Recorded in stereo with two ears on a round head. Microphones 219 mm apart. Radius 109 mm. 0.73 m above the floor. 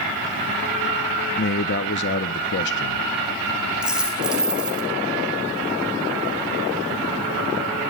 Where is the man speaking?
45° left (ahead or behind), 0.7 m.